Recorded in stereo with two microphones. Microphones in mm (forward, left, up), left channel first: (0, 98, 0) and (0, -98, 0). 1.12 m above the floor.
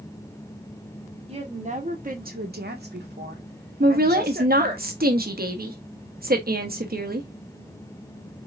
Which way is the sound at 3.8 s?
55° right (ahead or behind).